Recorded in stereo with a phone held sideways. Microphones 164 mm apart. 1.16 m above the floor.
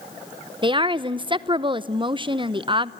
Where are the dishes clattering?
No dishes clattering in this recording.